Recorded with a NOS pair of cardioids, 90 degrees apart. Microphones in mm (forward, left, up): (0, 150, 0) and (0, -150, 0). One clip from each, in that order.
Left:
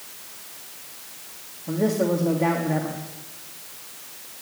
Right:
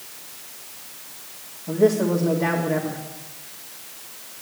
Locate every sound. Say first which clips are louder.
1.7 s a man speaking: right 4 dB; 15° left, 2.5 m